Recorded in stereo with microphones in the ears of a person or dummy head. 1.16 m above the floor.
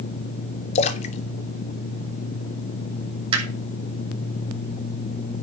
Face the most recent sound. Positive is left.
turn(degrees=-25)  # may be behind; listen again after turning